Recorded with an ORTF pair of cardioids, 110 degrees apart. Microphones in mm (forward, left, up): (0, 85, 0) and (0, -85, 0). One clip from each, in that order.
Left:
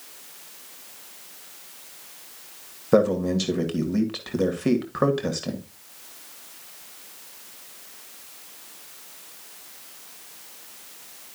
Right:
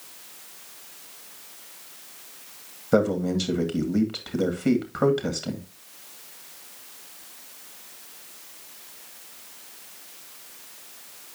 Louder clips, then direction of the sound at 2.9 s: Left 2 dB; 10° left.